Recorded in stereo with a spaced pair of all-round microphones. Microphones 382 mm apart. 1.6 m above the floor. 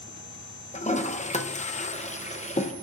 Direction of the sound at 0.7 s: 20° left (ahead or behind).